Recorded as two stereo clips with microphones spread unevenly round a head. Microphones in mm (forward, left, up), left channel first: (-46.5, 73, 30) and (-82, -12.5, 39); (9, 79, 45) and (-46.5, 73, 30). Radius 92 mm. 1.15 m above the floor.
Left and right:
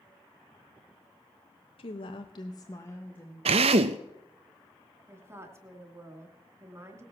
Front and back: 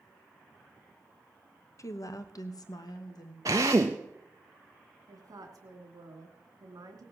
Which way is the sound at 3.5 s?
110° right.